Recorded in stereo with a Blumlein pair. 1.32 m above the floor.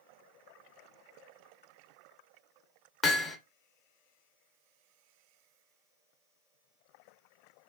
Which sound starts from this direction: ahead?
Hammering, at 3.0 s.